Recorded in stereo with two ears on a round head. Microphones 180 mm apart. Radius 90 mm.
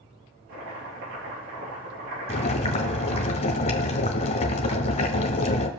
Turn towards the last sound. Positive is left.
turn(degrees=35)  # may be behind; listen again after turning